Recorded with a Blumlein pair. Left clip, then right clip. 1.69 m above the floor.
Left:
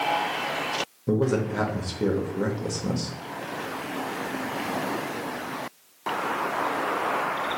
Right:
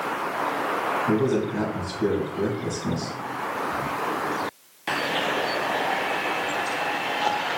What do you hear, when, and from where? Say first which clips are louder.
1.1 s a man speaking: right 2 dB; 25° left, 1.1 m